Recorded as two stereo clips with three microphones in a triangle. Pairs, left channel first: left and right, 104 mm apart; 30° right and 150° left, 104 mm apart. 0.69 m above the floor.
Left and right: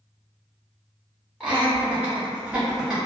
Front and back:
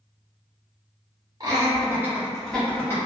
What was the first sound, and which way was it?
Laughter, 165° right.